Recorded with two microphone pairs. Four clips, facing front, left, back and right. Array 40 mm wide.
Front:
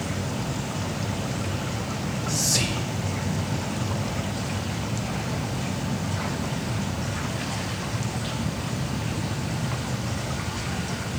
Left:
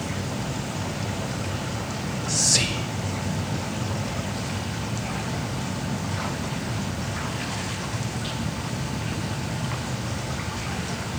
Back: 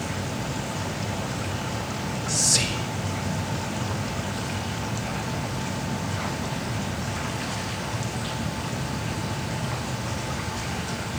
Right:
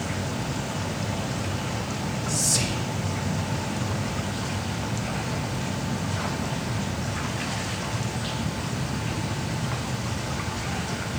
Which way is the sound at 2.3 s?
105° left.